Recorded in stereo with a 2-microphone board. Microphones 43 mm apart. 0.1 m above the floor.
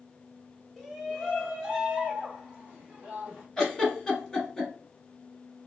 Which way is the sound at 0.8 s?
5° right (ahead or behind).